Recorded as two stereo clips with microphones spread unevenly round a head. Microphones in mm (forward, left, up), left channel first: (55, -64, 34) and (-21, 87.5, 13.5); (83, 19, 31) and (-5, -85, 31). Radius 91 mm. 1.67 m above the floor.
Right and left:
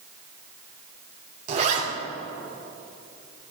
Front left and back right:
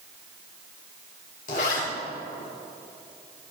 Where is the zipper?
75° left, 3.5 m.